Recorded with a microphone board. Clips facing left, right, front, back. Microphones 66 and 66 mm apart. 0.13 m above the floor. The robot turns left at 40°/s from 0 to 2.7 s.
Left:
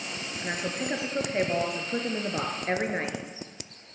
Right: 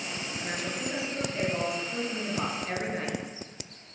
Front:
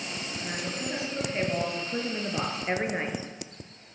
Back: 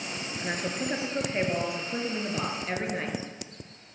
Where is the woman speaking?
150° left, 2.5 m; by 3.2 s 55° left, 2.5 m.